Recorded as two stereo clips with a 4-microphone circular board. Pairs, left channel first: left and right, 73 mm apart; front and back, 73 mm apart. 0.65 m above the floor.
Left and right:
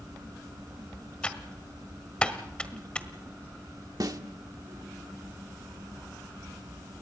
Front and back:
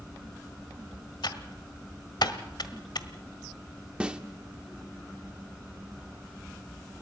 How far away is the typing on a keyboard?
About 1.4 m.